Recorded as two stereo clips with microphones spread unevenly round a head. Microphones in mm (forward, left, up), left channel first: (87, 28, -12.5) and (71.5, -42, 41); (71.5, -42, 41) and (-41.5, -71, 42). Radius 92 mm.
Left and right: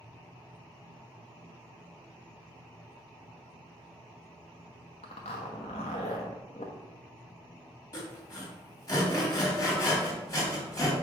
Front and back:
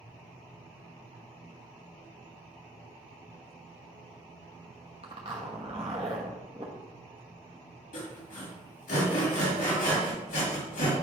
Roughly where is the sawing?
Ahead.